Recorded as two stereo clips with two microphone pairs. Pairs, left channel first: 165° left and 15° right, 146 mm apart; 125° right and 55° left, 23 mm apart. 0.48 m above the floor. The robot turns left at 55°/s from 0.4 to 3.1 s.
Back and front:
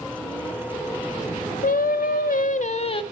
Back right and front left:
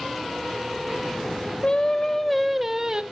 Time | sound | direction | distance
1.6 | singing | 170° right | 0.7 m